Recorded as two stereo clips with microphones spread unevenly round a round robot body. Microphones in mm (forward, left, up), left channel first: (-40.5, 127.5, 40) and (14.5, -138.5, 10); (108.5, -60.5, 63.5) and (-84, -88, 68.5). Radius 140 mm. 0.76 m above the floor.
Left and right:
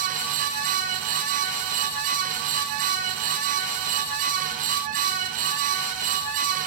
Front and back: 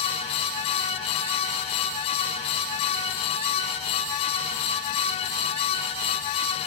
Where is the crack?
No crack in this recording.